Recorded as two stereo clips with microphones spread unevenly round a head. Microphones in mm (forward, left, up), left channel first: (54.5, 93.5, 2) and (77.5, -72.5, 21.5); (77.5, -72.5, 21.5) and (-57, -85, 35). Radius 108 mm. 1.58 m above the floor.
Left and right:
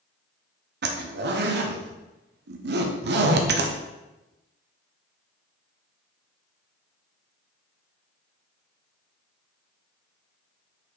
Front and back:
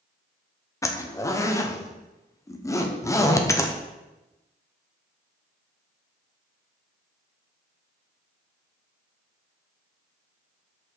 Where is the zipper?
65° right, 0.8 m.